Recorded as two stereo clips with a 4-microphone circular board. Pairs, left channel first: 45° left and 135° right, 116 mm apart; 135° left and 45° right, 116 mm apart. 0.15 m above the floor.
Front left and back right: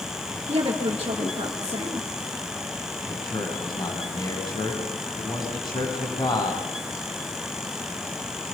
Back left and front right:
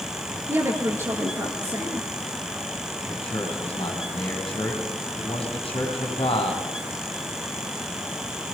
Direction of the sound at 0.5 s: 110° right.